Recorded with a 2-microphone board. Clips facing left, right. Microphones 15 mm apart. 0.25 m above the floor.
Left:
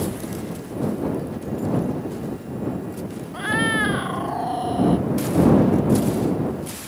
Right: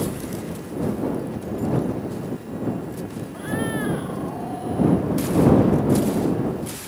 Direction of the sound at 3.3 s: 40° left (ahead or behind).